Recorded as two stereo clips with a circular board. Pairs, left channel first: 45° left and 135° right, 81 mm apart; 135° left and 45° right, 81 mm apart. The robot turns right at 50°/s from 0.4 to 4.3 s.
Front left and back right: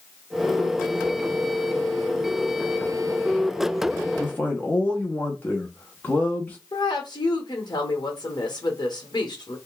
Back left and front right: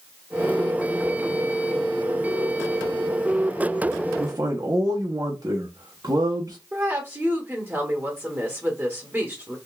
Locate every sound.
4.2 s a man speaking: 25° right, 0.9 m; by 6.6 s 20° right, 0.9 m
6.7 s a woman speaking: 15° left, 1.3 m